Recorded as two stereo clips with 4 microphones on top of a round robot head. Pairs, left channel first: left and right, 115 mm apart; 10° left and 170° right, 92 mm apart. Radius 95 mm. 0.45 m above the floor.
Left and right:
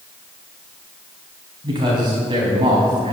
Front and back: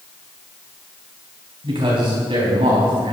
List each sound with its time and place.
1.6 s a man speaking: 140° right, 3.5 m